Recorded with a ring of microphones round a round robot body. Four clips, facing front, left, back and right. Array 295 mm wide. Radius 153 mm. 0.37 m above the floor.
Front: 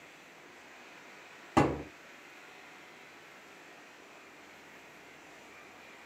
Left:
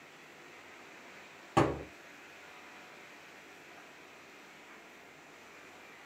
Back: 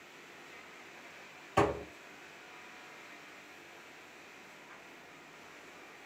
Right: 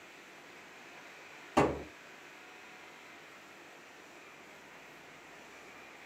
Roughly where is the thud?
Ahead left.